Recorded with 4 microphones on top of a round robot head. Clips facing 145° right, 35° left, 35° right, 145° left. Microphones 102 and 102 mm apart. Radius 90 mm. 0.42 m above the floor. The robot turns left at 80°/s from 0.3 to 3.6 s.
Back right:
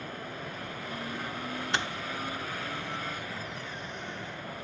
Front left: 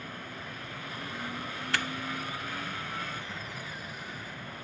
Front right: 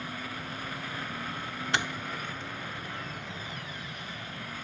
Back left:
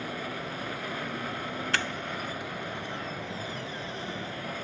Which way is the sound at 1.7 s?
90° right.